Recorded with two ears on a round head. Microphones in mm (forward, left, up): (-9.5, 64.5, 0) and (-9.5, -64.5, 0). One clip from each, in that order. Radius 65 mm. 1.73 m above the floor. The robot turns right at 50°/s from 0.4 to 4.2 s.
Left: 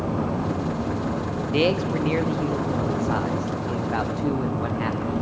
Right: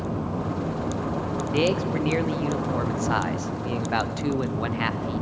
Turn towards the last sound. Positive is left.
turn(degrees=-55)